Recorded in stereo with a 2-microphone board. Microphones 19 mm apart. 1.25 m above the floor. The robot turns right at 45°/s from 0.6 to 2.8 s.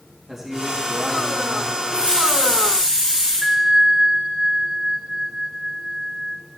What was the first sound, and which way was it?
A man speaking, 165° right.